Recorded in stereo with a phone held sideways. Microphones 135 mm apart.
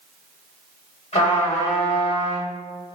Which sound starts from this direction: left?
A trumpet, at 1.1 s.